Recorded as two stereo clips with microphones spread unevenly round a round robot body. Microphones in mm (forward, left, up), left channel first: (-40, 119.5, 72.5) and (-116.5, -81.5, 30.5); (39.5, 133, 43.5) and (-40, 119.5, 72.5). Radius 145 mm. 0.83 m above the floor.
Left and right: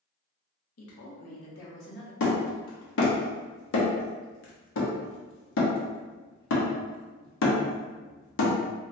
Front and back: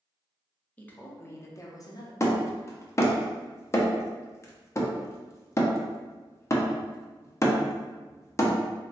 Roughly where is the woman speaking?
Left.